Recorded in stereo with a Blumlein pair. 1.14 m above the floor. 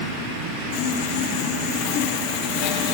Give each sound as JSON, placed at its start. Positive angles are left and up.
{"t": 0.7, "sound": "sawing", "azimuth_deg": 45, "distance_m": 0.7}